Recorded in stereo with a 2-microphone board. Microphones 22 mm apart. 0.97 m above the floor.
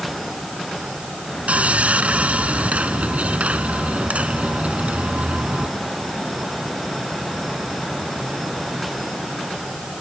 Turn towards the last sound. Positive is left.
turn(degrees=-75)  # may be behind; listen again after turning